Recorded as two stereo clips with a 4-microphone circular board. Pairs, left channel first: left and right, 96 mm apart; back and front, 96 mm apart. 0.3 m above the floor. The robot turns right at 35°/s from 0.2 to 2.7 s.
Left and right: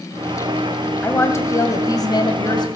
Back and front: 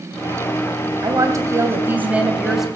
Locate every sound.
1.0 s a woman speaking: 30° left, 2.0 m; by 2.7 s 85° left, 2.0 m